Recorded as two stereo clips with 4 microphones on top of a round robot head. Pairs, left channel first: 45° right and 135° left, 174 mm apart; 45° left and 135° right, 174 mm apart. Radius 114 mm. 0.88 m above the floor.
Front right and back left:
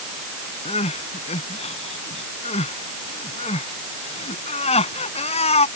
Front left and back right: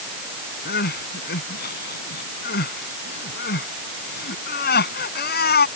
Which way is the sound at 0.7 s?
10° left.